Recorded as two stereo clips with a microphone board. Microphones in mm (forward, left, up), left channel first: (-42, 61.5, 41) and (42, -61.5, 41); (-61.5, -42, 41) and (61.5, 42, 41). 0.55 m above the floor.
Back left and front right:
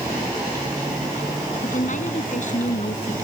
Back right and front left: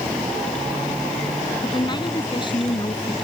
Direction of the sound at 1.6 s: 155° left.